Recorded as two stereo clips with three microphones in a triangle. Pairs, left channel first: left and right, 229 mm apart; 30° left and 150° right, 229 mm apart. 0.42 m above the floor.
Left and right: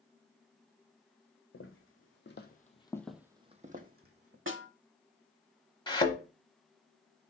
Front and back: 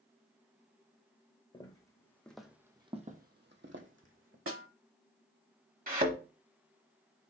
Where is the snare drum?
125° right, 0.7 m.